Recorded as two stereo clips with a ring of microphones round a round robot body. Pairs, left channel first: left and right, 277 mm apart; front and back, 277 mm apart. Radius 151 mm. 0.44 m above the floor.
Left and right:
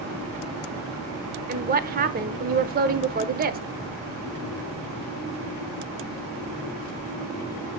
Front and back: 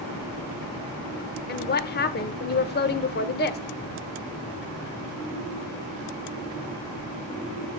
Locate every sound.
1.5 s a woman speaking: 45° right, 1.1 m